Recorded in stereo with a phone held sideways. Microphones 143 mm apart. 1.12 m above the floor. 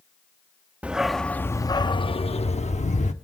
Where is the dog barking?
10° right (ahead or behind), 0.7 m; by 3.1 s 60° left (ahead or behind), 1.0 m.